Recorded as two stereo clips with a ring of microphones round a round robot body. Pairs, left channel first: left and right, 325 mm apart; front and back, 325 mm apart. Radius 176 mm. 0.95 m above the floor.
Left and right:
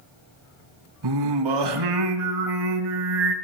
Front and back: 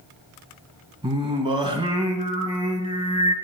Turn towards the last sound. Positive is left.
turn(degrees=-105)